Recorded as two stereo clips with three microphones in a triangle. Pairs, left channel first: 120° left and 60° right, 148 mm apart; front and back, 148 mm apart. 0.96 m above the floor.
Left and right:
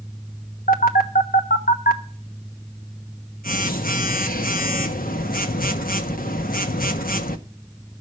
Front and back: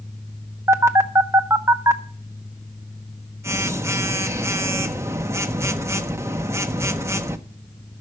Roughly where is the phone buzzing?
Left.